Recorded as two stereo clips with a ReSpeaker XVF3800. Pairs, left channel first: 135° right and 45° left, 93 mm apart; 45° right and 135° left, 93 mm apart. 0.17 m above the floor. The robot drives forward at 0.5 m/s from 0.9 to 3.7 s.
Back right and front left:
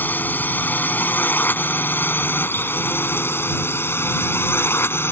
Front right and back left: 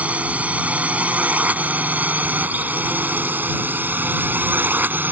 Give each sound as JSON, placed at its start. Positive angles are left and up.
{"t": 0.0, "sound": "a drone", "azimuth_deg": -170}